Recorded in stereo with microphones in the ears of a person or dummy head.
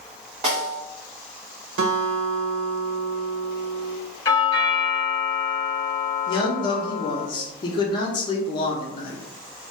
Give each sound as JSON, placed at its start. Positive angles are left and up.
{"t": 0.4, "sound": "a snare drum", "side_deg": -30, "distance_m": 1.3}
{"t": 1.8, "sound": "a guitar", "side_deg": -55, "distance_m": 1.0}
{"t": 4.2, "sound": "a doorbell", "side_deg": 20, "distance_m": 1.5}
{"t": 6.3, "sound": "a man speaking", "side_deg": 25, "distance_m": 0.6}